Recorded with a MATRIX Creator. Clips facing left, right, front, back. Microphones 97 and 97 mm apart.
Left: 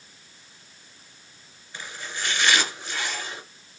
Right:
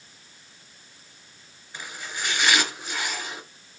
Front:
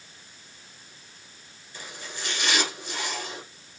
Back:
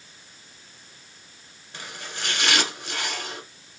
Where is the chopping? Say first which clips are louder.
Even, back 2 dB; 170° right, 1.5 m.